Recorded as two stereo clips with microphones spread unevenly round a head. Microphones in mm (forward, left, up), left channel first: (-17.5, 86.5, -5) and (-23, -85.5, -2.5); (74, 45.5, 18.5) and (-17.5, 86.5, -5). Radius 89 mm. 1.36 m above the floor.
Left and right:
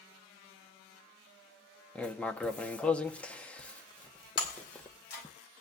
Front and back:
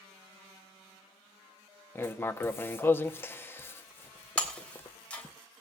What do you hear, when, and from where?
1.9 s writing: 5° left, 0.8 m
4.4 s breaking glass: 50° left, 3 m